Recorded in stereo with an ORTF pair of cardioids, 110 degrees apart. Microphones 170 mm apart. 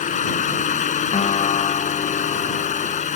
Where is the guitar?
35° left.